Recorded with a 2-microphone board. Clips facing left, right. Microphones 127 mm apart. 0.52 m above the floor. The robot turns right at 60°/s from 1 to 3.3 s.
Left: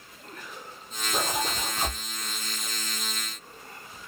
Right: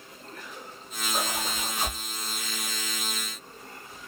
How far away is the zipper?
About 3 m.